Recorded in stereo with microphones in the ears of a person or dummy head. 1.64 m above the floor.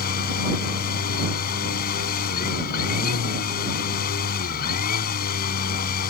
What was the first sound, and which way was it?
A machine running, 50° left (ahead or behind).